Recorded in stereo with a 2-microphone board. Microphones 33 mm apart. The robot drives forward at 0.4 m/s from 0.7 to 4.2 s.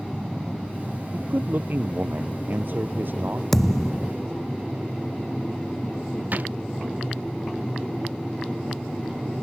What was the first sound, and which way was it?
A man speaking, 55° right (ahead or behind).